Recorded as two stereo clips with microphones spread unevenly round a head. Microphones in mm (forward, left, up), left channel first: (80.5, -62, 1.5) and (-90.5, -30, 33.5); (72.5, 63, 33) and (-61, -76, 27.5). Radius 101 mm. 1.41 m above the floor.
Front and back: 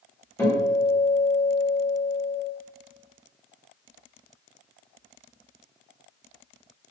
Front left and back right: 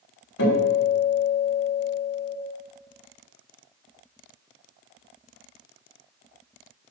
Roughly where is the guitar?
Left.